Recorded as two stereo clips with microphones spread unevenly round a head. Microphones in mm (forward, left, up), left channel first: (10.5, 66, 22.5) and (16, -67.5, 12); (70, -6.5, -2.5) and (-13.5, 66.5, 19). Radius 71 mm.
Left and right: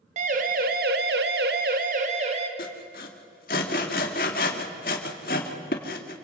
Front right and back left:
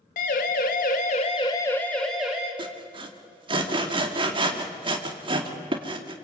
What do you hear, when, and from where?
0.2 s a siren: 50° right, 2.5 m; by 2.5 s 140° right, 2.5 m
2.6 s sawing: 110° left, 2.5 m